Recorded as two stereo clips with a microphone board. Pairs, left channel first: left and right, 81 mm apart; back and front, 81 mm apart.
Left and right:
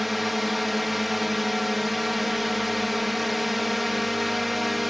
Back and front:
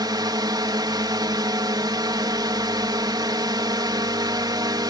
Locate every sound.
0.0 s a drone: straight ahead